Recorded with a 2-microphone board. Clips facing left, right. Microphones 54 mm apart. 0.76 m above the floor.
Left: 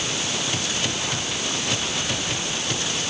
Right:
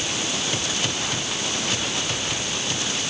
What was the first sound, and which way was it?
Only background noise.